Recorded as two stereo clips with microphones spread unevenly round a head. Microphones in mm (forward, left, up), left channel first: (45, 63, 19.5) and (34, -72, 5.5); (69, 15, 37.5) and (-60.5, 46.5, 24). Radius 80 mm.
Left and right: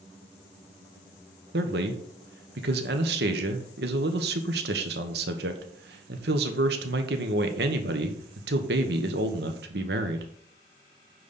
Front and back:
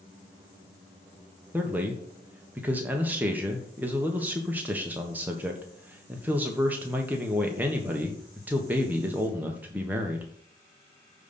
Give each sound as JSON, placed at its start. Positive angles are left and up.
{"t": 1.5, "sound": "a man speaking", "azimuth_deg": -115, "distance_m": 1.3}